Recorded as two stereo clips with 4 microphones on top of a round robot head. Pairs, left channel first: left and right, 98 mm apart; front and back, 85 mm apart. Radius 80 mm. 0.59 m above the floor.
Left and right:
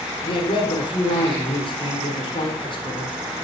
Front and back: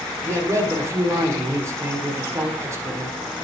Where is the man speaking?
125° left, 1.6 m.